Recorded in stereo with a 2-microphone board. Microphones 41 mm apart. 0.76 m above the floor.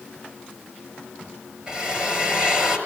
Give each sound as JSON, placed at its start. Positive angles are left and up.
{"t": 1.7, "sound": "a drill", "side_deg": -20, "distance_m": 6.0}